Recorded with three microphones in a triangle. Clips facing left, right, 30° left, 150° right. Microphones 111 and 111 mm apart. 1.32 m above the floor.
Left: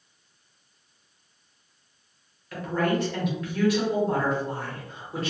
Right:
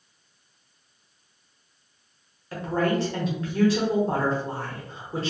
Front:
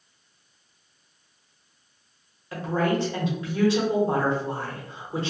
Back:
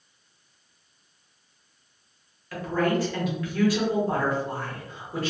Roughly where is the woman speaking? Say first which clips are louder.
Right 1 dB, even; ahead right.